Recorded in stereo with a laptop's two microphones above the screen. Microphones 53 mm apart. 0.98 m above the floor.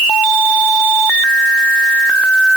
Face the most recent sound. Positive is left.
No sound to turn to.